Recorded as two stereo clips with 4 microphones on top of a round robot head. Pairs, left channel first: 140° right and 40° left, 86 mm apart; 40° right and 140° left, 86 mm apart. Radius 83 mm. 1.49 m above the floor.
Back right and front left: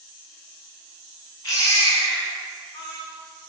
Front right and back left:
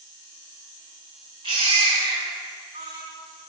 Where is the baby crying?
160° left, 4.5 m.